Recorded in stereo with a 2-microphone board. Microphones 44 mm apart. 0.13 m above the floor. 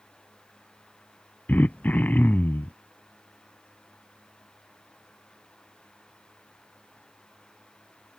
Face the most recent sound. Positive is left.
turn(degrees=40)  # may be behind; listen again after turning